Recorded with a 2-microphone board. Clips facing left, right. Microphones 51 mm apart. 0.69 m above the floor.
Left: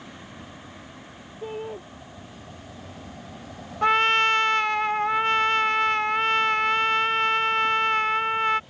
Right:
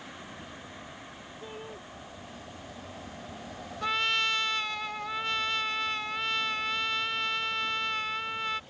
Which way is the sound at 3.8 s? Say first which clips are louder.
Left 9 dB; 45° left (ahead or behind).